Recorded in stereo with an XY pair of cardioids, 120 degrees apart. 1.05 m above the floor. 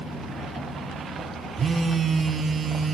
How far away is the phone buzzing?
About 0.8 m.